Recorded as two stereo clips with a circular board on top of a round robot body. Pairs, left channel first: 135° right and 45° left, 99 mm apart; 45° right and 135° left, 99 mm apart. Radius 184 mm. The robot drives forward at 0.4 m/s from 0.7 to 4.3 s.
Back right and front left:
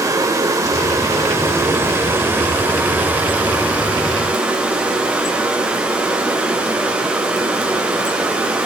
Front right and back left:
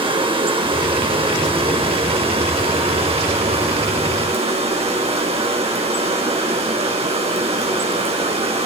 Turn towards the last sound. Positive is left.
turn(degrees=125)